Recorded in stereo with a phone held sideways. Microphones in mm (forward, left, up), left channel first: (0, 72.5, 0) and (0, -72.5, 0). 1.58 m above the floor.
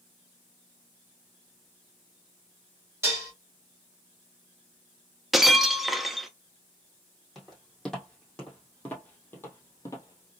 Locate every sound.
3.0 s dishes clattering: 20° right (ahead or behind), 1.9 m
5.3 s breaking glass: centre (ahead or behind), 0.7 m
7.3 s footsteps: centre (ahead or behind), 2.5 m; by 10.3 s 25° left (ahead or behind), 1.7 m